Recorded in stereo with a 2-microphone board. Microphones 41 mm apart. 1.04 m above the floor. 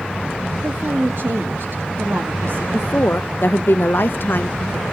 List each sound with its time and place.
0.6 s a woman speaking: 60° right (ahead or behind), 2 m
2.7 s a woman speaking: 60° left (ahead or behind), 0.6 m